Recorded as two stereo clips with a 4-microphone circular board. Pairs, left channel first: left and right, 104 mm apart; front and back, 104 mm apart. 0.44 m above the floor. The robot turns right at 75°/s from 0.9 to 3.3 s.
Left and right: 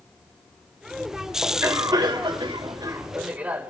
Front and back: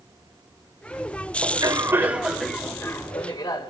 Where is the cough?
160° right, 1.8 m; by 3.7 s 20° right, 1.8 m.